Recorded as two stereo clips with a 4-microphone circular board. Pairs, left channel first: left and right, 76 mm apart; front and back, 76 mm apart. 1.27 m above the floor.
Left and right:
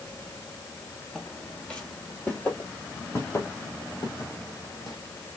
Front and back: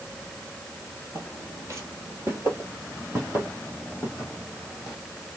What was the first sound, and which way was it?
Footsteps, 175° left.